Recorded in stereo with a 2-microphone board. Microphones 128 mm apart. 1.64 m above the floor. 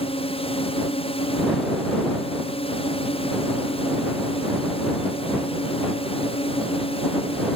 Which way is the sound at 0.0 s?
50° left (ahead or behind).